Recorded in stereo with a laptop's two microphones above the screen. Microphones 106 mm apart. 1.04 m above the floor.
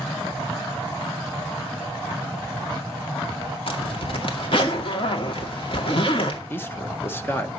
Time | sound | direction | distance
3.7 | a zipper | 60° left (ahead or behind) | 2 m
6.5 | a man speaking | 20° left (ahead or behind) | 1.0 m